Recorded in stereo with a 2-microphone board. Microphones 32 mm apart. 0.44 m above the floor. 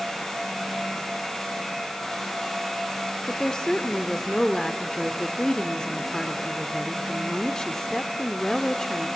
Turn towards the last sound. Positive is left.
turn(degrees=20)  # may be behind; listen again after turning